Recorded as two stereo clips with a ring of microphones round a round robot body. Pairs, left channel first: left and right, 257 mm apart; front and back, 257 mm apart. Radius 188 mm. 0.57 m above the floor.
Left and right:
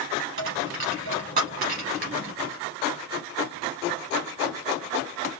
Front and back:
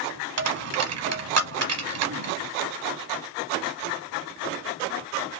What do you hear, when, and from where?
0.4 s a dropped coin: 160° right, 1.0 m